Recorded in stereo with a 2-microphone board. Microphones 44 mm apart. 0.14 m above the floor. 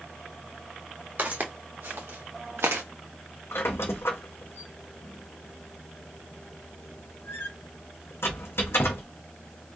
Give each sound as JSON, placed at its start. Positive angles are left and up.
{"t": 1.2, "sound": "footsteps", "side_deg": -45, "distance_m": 1.7}
{"t": 3.5, "sound": "a squeak", "side_deg": 80, "distance_m": 0.8}